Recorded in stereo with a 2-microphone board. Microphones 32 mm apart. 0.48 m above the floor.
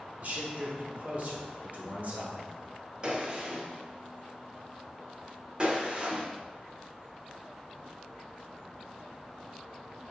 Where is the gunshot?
30° right (ahead or behind), 0.8 m.